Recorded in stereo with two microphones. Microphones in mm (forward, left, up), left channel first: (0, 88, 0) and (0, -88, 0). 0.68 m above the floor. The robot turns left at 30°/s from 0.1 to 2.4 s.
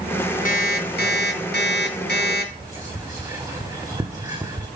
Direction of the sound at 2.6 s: 20° right (ahead or behind).